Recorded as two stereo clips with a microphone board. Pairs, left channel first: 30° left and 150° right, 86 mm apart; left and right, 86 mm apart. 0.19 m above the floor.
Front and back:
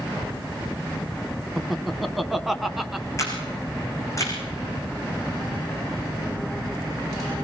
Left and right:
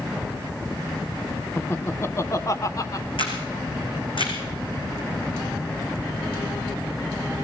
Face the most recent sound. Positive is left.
turn(degrees=85)